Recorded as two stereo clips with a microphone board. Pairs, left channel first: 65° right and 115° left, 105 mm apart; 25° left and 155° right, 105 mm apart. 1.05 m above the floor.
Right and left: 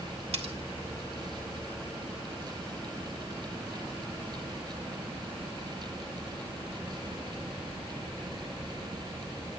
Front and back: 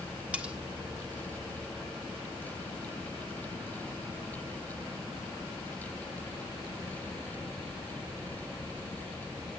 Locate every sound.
0.3 s cutlery clinking: 125° left, 1.5 m